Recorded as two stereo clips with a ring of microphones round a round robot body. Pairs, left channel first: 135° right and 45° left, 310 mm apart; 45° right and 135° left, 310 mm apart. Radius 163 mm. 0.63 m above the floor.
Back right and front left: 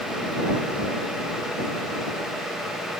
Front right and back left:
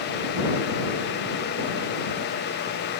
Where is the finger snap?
No finger snap in this recording.